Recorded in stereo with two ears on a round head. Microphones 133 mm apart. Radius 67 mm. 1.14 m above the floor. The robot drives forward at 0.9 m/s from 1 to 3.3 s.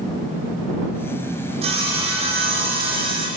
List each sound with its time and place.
1.6 s sawing: 45° right (ahead or behind), 8.5 m; by 3.3 s 40° right (ahead or behind), 9.5 m